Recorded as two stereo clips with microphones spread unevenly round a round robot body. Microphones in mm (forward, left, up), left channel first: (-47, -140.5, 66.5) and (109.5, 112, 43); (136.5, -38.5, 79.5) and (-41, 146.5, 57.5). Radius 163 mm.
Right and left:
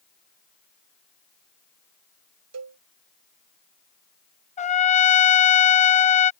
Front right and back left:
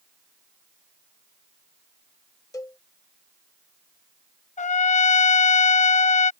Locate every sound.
2.5 s a cowbell: 35° left
4.6 s a trumpet: 75° right